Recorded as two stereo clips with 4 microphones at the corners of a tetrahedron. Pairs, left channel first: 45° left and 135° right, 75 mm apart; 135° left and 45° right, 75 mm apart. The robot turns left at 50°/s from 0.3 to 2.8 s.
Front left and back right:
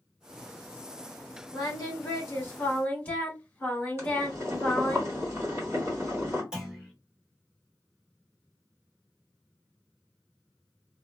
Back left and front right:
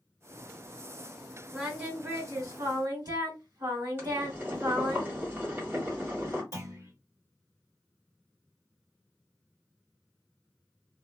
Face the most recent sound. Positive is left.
turn(degrees=-55)